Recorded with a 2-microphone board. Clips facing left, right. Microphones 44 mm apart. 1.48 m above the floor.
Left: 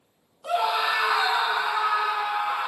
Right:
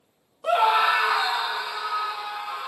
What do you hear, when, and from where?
0.4 s a scream: 35° right (ahead or behind), 0.6 m; by 2.7 s 50° left (ahead or behind), 1.1 m